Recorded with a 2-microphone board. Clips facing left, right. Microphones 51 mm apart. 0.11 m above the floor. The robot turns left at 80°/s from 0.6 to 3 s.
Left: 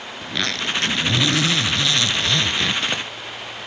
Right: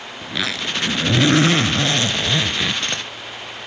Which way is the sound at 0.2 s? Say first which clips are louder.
Even; 10° right.